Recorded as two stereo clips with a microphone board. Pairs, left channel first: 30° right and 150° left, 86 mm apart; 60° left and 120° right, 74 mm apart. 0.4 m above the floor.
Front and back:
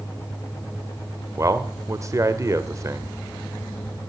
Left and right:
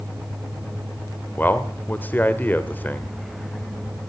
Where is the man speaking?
115° left, 1.0 m.